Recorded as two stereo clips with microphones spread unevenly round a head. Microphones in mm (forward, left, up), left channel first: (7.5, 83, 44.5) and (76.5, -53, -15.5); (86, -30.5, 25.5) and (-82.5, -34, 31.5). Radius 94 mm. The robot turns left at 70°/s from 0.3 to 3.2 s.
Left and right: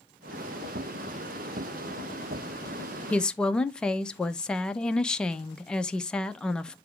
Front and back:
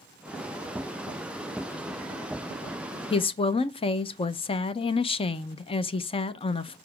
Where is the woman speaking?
5° left, 0.6 m; by 6.8 s straight ahead, 0.6 m.